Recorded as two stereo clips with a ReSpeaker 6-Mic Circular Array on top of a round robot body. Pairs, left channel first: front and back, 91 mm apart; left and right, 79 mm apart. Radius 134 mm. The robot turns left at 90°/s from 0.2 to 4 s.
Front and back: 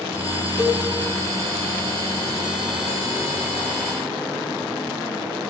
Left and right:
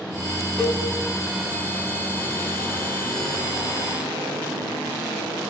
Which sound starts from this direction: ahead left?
A cowbell, at 0.6 s.